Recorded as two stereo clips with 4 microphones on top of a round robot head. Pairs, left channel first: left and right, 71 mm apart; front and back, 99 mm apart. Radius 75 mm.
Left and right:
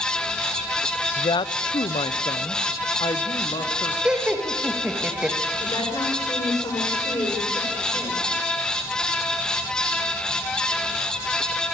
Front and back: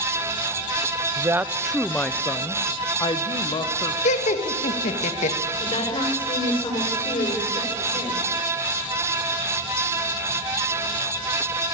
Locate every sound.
1.2 s a woman speaking: 120° left, 1.0 m; by 4.0 s 35° left, 2 m
4.0 s laughter: 10° right, 2 m
5.6 s a woman speaking: 30° left, 5.5 m